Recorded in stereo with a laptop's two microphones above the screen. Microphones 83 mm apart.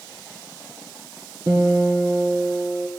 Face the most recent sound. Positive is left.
turn(degrees=-45)  # may be behind; listen again after turning